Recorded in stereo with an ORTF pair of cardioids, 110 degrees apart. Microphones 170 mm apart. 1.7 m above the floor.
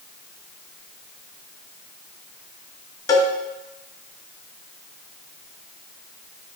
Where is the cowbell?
20° left, 1.2 m.